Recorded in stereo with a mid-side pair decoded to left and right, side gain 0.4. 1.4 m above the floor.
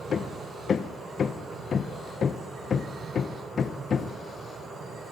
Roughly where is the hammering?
Ahead left.